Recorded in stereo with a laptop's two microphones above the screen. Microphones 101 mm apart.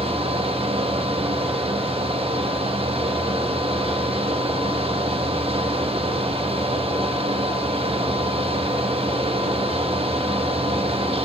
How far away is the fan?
About 1.0 m.